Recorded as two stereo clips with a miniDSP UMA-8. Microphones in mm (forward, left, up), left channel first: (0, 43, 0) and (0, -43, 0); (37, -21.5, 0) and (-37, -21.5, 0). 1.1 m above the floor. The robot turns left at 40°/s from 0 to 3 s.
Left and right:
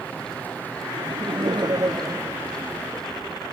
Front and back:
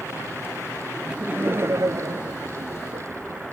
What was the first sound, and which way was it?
Laughter, 100° right.